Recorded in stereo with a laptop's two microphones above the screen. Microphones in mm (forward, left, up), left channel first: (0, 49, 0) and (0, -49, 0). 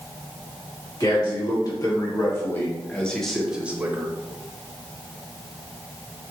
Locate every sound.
1.0 s a man speaking: 45° left (ahead or behind), 1.6 m; by 4.2 s 30° right (ahead or behind), 0.8 m